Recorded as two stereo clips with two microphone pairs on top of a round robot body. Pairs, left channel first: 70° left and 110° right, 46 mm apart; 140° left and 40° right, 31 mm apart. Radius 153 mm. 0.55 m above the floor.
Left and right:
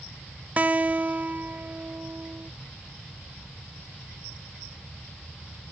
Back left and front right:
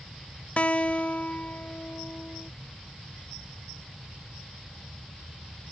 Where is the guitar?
170° right.